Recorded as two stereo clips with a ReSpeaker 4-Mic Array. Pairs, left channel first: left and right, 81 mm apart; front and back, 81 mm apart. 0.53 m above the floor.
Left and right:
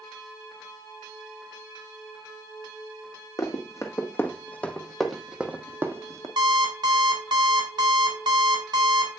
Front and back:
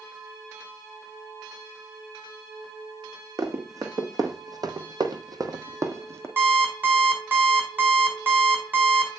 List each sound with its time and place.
3.4 s running footsteps: 135° left, 1.3 m; by 6.3 s 130° right, 0.9 m
6.4 s an alarm clock: 115° right, 2 m